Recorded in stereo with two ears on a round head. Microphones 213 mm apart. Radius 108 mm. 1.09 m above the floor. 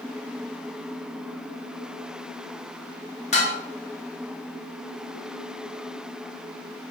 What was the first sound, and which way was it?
Dishes clattering, 25° left (ahead or behind).